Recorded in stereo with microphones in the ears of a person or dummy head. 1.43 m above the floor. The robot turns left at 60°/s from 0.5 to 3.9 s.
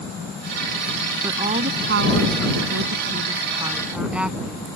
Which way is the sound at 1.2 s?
15° right.